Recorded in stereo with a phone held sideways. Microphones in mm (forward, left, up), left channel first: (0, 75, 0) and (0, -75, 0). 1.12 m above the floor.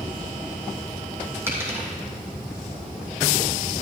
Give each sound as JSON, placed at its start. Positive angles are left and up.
{"t": 1.5, "sound": "a dropped coin", "side_deg": -15, "distance_m": 2.5}